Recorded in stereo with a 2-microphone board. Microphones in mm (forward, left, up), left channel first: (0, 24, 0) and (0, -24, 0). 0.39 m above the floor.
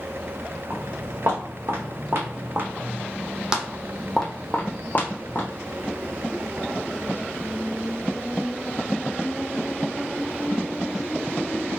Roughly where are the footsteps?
Right.